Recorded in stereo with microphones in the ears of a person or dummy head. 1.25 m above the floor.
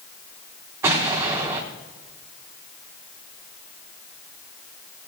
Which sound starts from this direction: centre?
An explosion, at 0.8 s.